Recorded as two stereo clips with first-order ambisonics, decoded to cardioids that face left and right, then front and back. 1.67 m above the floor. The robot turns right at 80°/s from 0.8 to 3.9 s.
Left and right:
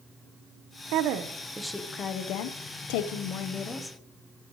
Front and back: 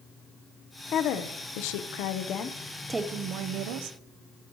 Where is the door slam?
I don't hear a door slam.